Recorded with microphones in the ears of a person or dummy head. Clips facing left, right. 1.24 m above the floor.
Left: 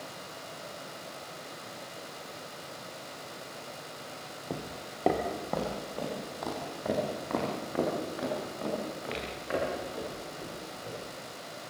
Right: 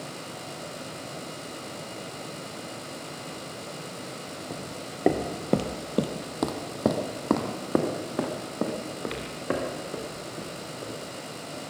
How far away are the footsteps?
About 1.5 m.